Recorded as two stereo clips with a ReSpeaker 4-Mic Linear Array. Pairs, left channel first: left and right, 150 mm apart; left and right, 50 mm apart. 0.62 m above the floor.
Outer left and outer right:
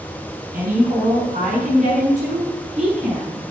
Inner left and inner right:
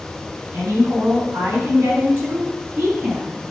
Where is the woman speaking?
70° right (ahead or behind), 4.5 m; by 3.4 s 40° right (ahead or behind), 7 m.